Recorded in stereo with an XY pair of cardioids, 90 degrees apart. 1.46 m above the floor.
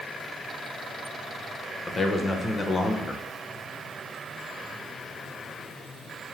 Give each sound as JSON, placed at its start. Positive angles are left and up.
{"t": 1.9, "sound": "a man speaking", "azimuth_deg": 35, "distance_m": 0.7}